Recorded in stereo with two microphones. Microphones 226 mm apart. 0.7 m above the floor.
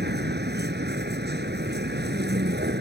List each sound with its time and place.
0.0 s a vehicle: 50° right (ahead or behind)